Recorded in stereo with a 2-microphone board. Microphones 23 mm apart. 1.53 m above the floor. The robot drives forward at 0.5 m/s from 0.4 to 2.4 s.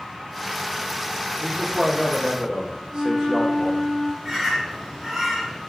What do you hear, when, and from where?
1.4 s a man speaking: 40° right (ahead or behind), 0.8 m; by 3.9 s 25° right (ahead or behind), 1.2 m
2.9 s a flute: 30° right (ahead or behind), 1.4 m
4.2 s a bird: 20° right (ahead or behind), 1.2 m